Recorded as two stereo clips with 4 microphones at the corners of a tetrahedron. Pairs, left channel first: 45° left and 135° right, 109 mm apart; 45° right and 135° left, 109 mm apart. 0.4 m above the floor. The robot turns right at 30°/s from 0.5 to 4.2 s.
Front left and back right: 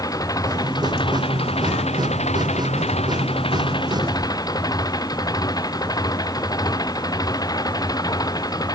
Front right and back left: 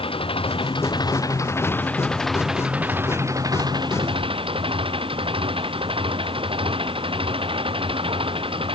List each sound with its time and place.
0.0 s an engine running: 10° right; by 8.8 s 100° left